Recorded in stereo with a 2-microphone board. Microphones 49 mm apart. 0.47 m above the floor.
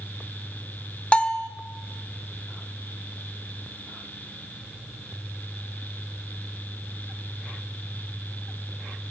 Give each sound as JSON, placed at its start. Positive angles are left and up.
{"t": 1.1, "sound": "a bell", "side_deg": 25, "distance_m": 0.6}